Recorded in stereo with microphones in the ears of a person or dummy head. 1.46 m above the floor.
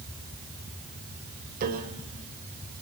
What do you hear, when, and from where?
1.6 s a piano: 50° right (ahead or behind), 3 m